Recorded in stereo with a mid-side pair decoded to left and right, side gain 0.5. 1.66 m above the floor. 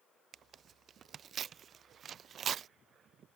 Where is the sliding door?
No sliding door in this recording.